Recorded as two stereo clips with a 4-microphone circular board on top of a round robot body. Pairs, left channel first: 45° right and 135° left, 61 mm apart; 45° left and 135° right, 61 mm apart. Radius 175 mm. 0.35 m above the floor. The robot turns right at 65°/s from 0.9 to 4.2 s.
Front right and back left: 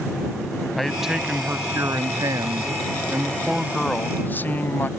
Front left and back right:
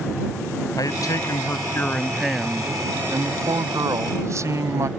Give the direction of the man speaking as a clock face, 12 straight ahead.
11 o'clock.